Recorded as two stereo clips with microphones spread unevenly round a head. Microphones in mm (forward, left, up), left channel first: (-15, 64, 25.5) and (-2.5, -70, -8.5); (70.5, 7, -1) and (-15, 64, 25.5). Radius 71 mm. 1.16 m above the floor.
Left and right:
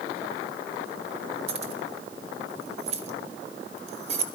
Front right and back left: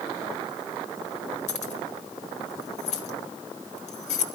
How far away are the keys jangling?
About 1.2 m.